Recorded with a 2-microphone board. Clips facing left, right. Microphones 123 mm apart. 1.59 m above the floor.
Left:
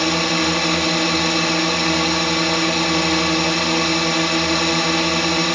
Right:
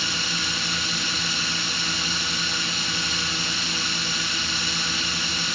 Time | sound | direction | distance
0.0 | a drone | 75° left (ahead or behind) | ?